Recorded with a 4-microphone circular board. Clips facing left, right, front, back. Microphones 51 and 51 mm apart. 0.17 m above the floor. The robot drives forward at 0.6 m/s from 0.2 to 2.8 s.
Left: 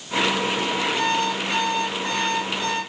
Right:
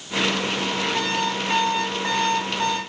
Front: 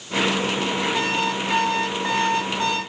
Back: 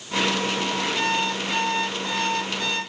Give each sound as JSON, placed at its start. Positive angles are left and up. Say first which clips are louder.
{"t": 0.9, "sound": "an alarm clock", "louder": "left 2 dB, front 1 dB", "azimuth_deg": -35, "distance_m": 6.5}